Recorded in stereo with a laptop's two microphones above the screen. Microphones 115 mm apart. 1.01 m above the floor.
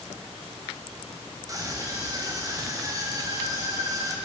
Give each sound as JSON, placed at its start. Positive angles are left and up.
{"t": 1.5, "sound": "a scream", "side_deg": -30, "distance_m": 6.5}